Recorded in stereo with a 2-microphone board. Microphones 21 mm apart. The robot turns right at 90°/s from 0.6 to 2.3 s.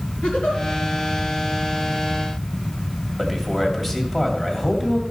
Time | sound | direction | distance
0.2 | a giggle | 75° left (ahead or behind) | 4 m
3.2 | a man speaking | centre (ahead or behind) | 2 m